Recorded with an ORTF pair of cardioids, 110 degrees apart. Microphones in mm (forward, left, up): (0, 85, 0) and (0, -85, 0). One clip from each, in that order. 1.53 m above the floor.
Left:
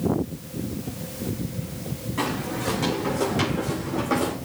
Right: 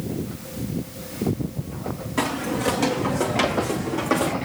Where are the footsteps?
50° right, 7 m; by 4.3 s 40° right, 6.5 m.